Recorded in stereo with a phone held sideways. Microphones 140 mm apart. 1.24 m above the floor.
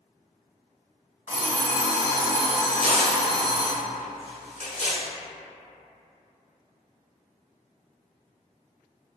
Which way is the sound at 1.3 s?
60° left (ahead or behind).